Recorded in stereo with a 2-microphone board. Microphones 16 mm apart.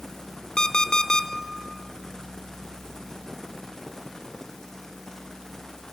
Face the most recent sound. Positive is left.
turn(degrees=55)  # may be behind; listen again after turning